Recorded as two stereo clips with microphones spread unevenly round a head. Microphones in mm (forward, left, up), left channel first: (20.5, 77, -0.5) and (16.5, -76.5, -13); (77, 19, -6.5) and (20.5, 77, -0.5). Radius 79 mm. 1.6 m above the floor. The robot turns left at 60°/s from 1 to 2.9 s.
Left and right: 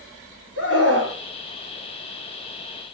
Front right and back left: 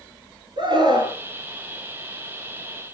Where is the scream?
110° left, 5.5 m; by 1.2 s 100° left, 5.5 m.